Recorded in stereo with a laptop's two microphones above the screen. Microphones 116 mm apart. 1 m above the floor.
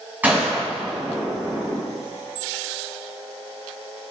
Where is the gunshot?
15° right (ahead or behind), 6.5 m.